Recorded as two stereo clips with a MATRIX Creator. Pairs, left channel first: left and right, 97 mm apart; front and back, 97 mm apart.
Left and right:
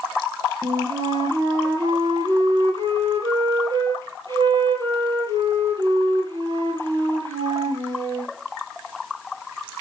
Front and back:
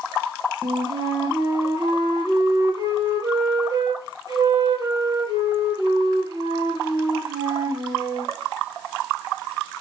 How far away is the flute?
About 7.5 m.